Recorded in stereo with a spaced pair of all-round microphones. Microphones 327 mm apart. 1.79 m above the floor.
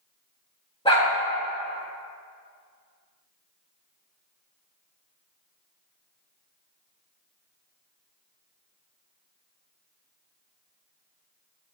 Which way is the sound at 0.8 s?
15° left (ahead or behind).